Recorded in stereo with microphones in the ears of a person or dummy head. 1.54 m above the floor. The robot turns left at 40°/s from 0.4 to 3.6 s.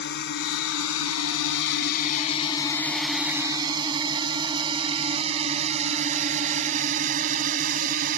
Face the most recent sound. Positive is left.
turn(degrees=-50)  # may be behind; listen again after turning